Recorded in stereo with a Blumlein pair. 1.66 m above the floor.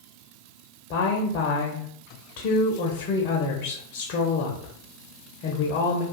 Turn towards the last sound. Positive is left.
turn(degrees=45)